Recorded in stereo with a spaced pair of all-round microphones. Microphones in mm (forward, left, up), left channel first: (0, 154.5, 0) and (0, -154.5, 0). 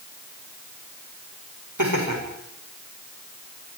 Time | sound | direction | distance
1.8 | laughter | 80° right | 7 m